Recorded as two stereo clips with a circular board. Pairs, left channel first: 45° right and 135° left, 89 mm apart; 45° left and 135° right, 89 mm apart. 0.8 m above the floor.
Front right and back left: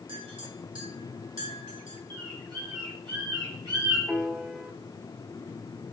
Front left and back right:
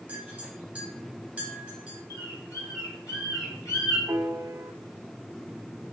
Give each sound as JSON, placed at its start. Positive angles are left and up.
{"t": 0.1, "sound": "a clink", "azimuth_deg": 150, "distance_m": 4.0}
{"t": 2.1, "sound": "a bird", "azimuth_deg": 100, "distance_m": 3.0}
{"t": 4.1, "sound": "a piano", "azimuth_deg": -150, "distance_m": 0.7}